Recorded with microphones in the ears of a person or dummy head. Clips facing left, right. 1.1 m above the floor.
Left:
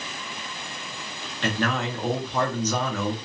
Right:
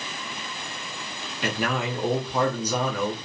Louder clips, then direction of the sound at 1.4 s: Left 1 dB; 5° right (ahead or behind).